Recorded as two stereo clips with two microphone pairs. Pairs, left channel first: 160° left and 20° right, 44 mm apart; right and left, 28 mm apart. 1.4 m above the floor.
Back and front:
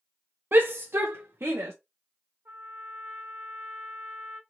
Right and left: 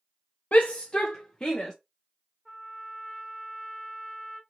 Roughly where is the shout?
Ahead right.